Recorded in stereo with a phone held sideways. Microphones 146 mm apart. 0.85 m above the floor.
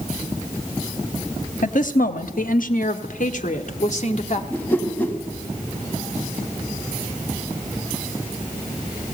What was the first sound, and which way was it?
A woman speaking, 65° left (ahead or behind).